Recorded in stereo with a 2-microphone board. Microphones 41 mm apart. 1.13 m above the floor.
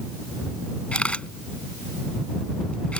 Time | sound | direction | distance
0.9 | a camera shutter | 35° left (ahead or behind) | ?